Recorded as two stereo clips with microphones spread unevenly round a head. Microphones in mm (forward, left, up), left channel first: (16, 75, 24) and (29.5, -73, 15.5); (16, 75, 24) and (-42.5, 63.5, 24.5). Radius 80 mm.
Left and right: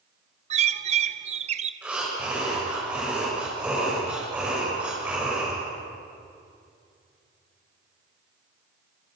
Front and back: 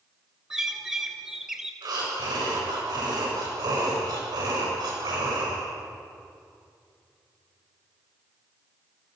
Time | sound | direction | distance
0.5 | a bird | 90° right | 0.8 m
1.8 | breathing | 170° right | 7.5 m